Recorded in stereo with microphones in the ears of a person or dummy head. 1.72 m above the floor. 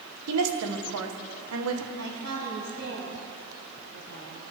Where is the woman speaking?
85° right, 1.9 m.